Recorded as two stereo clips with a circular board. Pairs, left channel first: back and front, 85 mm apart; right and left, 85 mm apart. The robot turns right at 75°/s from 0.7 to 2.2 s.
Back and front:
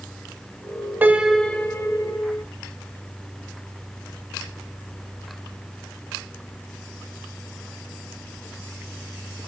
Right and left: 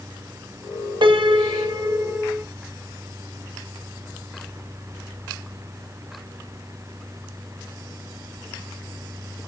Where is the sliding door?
I don't hear a sliding door.